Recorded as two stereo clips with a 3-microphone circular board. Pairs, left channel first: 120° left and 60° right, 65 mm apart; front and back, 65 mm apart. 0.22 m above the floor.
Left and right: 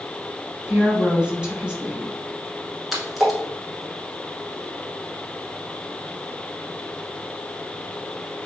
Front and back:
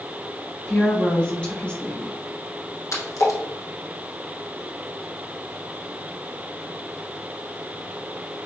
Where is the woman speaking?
15° right, 0.9 m.